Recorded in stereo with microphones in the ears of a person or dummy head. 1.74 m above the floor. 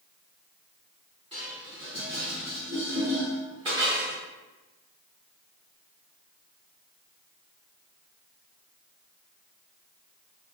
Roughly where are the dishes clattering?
Right.